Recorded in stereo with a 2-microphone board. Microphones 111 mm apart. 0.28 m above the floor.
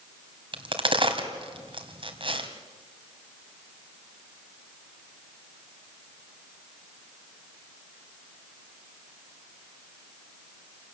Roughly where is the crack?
Right.